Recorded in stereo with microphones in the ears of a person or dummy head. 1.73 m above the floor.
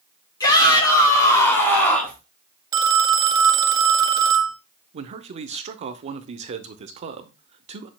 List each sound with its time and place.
0.4 s a shout: 25° left (ahead or behind), 4 m; by 2.2 s 10° left (ahead or behind), 3 m
2.7 s a phone ringing: 20° right (ahead or behind), 0.8 m
4.9 s a man speaking: 30° right (ahead or behind), 0.6 m